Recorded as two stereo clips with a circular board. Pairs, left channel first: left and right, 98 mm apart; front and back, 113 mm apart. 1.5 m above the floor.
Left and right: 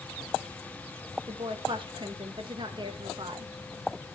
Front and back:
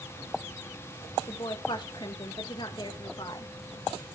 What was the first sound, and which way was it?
A woman speaking, 50° right.